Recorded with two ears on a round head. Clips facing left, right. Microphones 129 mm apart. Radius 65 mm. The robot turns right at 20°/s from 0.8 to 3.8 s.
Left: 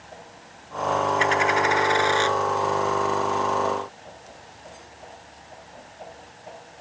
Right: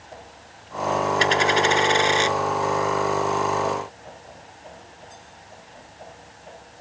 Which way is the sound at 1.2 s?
40° right (ahead or behind).